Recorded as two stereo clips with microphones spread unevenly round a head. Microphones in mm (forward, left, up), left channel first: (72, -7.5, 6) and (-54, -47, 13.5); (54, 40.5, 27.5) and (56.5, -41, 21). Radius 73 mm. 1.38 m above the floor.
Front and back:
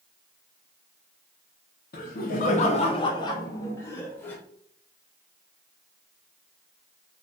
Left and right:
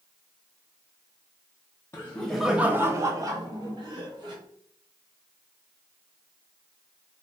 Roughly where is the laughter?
Ahead left.